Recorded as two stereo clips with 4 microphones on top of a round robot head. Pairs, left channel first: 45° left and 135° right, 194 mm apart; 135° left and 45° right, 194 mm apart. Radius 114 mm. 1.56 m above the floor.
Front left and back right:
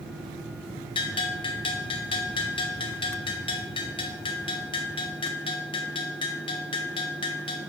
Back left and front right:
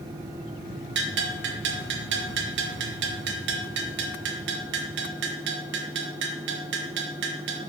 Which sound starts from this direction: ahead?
A bell, at 0.9 s.